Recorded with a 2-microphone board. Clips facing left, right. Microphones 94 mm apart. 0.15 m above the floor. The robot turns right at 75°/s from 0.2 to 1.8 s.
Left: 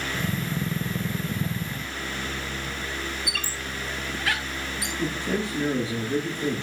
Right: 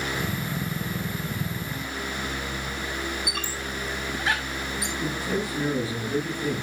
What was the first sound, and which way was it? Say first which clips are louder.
A squeak: right 1 dB; 20° right (ahead or behind).